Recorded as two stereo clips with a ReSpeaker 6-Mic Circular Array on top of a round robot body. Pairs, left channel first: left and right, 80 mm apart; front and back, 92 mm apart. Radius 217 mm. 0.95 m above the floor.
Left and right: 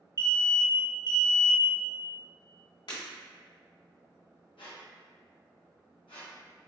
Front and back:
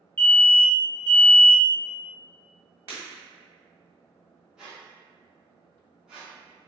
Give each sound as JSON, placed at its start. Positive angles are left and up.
{"t": 0.2, "sound": "an alarm", "azimuth_deg": -70, "distance_m": 1.7}
{"t": 2.9, "sound": "breaking glass", "azimuth_deg": 115, "distance_m": 1.3}
{"t": 4.6, "sound": "a squeak", "azimuth_deg": 95, "distance_m": 0.7}